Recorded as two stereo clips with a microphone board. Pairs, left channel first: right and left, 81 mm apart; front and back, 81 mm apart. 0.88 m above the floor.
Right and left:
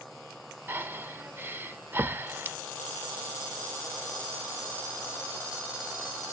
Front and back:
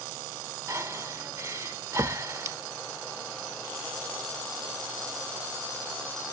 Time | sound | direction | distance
0.7 | breathing | 140° left | 0.7 m